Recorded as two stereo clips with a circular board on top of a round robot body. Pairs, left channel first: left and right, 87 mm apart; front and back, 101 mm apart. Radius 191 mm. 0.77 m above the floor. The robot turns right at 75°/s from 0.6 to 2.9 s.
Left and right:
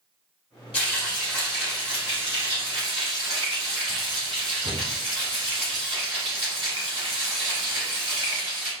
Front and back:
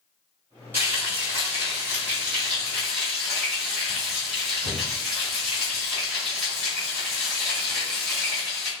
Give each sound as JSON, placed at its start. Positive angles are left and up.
{"t": 0.7, "sound": "frying", "azimuth_deg": 110, "distance_m": 1.2}